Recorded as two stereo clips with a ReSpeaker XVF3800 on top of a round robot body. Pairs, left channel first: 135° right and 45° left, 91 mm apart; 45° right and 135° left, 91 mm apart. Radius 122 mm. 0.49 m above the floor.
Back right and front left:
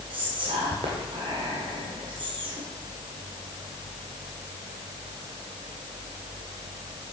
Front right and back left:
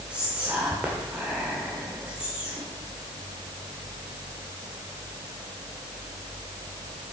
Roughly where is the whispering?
Ahead left.